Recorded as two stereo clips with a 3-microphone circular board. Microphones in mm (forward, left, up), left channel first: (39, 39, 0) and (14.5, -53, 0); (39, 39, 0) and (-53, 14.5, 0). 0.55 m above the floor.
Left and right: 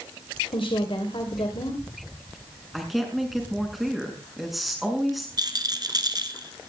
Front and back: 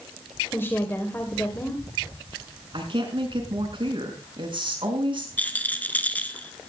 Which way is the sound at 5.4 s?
60° right.